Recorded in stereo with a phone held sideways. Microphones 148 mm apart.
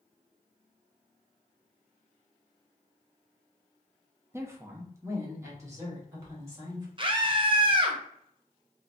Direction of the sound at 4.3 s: 15° right (ahead or behind).